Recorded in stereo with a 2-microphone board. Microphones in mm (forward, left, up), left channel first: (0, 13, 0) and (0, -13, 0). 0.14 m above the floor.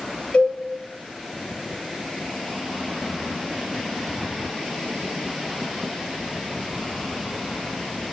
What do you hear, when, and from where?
0.3 s a cowbell: 60° left (ahead or behind), 3 m